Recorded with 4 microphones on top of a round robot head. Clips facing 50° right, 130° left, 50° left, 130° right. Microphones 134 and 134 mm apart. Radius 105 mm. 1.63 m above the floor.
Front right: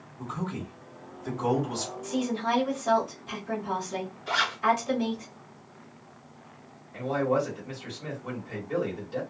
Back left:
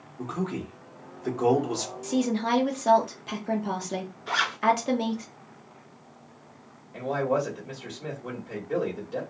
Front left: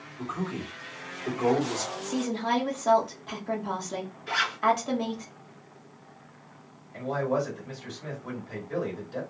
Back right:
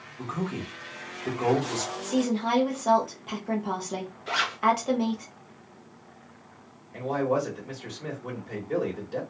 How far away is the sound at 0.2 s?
About 1.1 m.